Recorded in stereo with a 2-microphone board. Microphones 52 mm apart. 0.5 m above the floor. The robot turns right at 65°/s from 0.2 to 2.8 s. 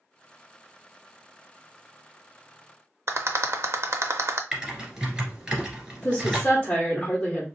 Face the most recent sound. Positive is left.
turn(degrees=25)  # may be behind; listen again after turning